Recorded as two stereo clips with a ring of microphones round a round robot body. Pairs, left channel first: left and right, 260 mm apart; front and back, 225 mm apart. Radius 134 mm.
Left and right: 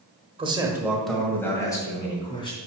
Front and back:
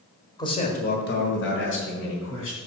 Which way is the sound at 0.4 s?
50° right.